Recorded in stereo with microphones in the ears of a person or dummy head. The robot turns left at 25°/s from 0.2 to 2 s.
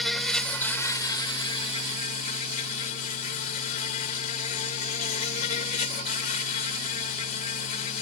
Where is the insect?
Straight behind; by 8.0 s 135° left.